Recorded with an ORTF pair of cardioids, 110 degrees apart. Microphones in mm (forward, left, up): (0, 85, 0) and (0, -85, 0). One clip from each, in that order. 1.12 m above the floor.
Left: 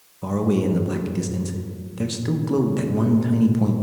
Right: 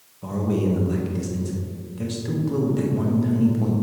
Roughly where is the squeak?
No squeak in this recording.